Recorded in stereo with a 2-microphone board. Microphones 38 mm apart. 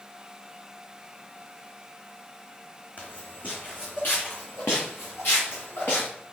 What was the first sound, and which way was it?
Footsteps, 45° left (ahead or behind).